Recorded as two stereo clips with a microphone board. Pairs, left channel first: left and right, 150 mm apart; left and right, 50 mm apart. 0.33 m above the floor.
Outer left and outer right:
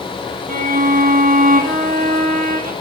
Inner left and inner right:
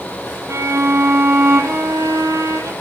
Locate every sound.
0.5 s a violin: 75° right (ahead or behind), 2.5 m